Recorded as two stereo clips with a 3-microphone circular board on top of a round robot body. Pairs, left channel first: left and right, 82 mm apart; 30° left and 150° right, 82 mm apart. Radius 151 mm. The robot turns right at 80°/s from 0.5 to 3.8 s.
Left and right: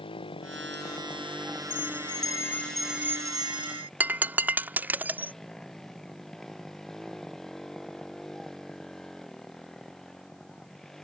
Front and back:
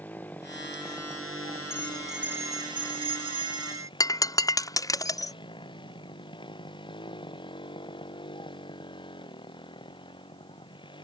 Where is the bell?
95° left; by 3.9 s 100° right.